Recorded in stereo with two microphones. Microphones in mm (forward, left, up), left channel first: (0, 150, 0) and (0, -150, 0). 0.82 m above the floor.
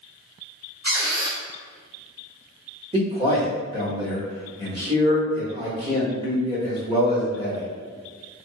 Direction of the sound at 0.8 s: 35° right (ahead or behind).